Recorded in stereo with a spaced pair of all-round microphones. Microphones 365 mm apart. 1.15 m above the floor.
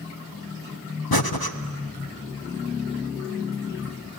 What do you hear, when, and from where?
1.1 s breathing: 75° left (ahead or behind), 1.0 m